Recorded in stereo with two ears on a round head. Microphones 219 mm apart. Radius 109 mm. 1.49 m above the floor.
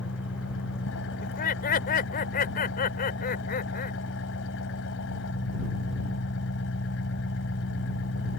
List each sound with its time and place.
0.0 s an engine running: 60° left (ahead or behind)
1.2 s laughter: 40° left (ahead or behind)